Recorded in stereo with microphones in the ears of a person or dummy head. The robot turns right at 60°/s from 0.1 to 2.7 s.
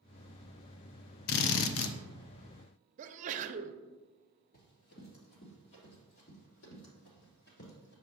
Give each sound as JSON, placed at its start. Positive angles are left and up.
{"t": 1.3, "sound": "a drill", "azimuth_deg": 55, "distance_m": 0.6}
{"t": 3.0, "sound": "a sneeze", "side_deg": -45, "distance_m": 0.6}
{"t": 4.5, "sound": "running footsteps", "side_deg": 40, "distance_m": 1.9}